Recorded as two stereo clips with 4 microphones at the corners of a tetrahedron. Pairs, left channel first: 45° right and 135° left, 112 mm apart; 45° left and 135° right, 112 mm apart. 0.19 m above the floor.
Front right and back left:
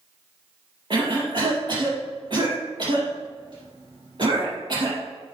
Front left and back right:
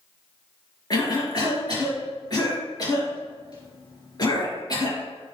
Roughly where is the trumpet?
I don't hear a trumpet.